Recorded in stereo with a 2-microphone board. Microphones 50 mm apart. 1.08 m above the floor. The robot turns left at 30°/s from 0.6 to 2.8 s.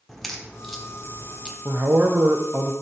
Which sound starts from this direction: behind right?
A man speaking, at 1.6 s.